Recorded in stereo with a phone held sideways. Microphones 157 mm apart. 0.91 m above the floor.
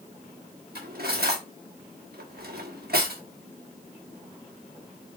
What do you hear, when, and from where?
0.8 s cutlery clinking: 80° right, 1.2 m